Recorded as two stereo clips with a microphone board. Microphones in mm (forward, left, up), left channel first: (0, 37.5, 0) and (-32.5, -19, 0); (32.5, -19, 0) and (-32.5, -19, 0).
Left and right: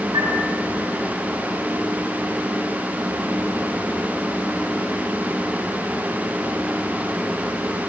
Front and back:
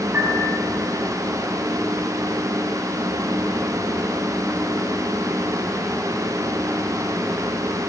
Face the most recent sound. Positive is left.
turn(degrees=-125)